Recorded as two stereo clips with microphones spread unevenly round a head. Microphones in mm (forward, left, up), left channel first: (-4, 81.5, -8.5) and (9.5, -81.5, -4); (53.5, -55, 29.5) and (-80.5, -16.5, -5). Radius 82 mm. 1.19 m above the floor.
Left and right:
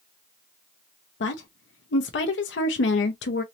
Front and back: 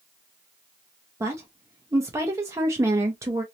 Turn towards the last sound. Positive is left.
turn(degrees=100)